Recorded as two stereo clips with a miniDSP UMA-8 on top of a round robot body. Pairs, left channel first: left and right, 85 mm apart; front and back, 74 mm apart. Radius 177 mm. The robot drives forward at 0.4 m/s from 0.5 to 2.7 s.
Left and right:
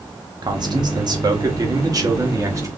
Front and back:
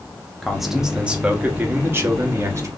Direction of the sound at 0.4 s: 90° right.